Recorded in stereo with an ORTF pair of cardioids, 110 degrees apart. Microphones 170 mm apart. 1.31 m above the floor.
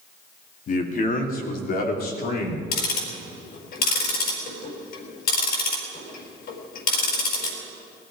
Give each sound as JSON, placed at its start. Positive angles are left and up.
{"t": 0.7, "sound": "a man speaking", "azimuth_deg": 50, "distance_m": 3.0}
{"t": 2.7, "sound": "ticking", "azimuth_deg": 65, "distance_m": 5.0}